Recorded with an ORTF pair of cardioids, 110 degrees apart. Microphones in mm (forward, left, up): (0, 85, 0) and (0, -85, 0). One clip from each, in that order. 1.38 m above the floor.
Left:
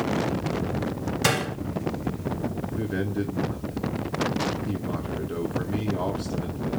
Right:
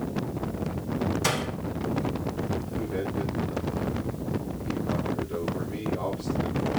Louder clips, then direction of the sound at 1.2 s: Left 6 dB; 40° left.